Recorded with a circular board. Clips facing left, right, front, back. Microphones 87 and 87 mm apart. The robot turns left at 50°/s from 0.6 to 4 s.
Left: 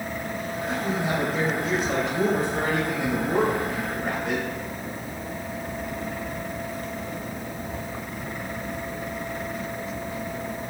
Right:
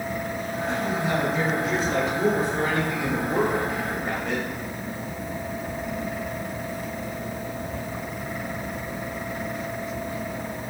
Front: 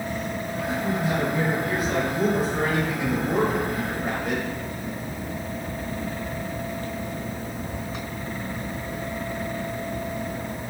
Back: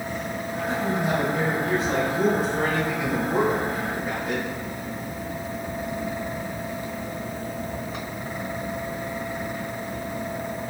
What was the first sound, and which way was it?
A man speaking, straight behind.